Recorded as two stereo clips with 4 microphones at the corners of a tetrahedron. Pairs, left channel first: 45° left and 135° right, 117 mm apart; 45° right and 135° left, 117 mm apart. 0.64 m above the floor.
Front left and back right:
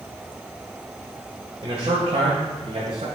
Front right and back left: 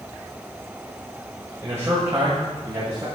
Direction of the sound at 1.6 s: 165° right.